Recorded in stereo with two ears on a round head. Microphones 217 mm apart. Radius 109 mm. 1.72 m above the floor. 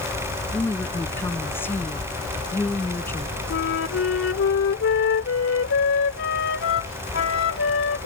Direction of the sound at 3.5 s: 50° left (ahead or behind).